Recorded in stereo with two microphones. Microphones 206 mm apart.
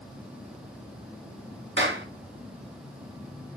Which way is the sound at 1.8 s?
65° right (ahead or behind).